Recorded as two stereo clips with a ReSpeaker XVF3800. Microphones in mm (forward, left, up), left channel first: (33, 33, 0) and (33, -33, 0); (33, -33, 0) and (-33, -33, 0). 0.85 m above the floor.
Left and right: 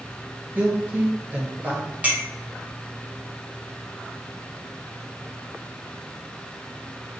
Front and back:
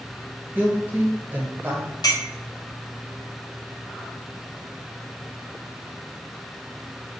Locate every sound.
0.6 s a woman speaking: 135° right, 1.0 m
2.0 s a clink: 20° right, 0.9 m